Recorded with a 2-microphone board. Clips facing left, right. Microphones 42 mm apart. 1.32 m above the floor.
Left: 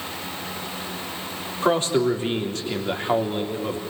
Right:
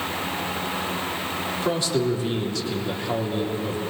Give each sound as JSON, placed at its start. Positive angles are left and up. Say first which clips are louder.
{"t": 1.6, "sound": "a man speaking", "louder": "left 5 dB", "side_deg": 40, "distance_m": 3.5}